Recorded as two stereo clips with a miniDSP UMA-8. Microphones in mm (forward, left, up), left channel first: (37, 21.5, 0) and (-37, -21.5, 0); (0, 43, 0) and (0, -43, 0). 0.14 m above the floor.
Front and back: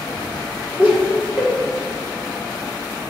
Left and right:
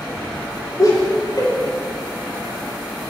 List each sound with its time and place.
0.8 s laughter: 135° left, 3 m